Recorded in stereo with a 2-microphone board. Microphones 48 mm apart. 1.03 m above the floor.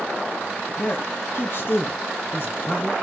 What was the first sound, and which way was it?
A man speaking, 45° left (ahead or behind).